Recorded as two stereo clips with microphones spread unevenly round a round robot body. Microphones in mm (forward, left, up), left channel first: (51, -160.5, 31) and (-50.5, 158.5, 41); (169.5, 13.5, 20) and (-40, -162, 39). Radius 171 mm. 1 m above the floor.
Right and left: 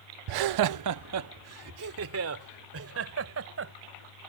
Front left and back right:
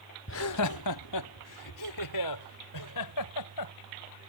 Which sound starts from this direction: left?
Laughter, at 0.3 s.